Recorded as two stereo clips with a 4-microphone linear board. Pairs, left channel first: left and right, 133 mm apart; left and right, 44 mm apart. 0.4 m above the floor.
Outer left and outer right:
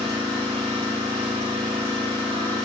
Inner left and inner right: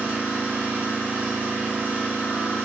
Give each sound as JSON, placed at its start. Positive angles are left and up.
{"t": 0.0, "sound": "an engine running", "side_deg": -45, "distance_m": 1.3}